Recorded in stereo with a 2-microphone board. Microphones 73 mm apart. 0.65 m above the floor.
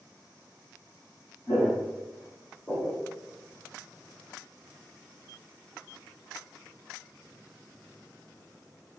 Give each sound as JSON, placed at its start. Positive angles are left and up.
{"t": 1.5, "sound": "footsteps", "side_deg": 60, "distance_m": 1.5}